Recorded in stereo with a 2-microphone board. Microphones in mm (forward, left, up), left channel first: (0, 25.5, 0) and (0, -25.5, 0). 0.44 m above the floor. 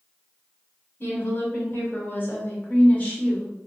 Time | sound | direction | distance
1.0 | a woman speaking | 45° left (ahead or behind) | 1.5 m